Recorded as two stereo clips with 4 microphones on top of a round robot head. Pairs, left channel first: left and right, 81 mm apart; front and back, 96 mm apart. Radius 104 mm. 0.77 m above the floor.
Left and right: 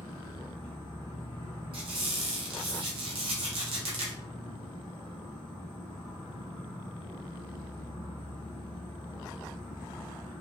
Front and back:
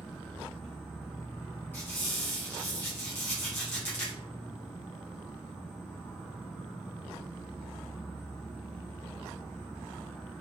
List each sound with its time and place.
0.0 s an insect: 90° left, 0.7 m
1.7 s a squeak: 75° right, 0.7 m